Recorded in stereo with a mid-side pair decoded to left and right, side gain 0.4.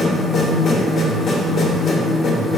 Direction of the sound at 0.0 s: 65° left.